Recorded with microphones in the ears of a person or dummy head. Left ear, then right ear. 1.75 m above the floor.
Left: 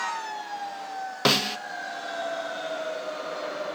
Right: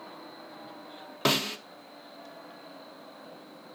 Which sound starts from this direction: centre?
A snare drum, at 1.2 s.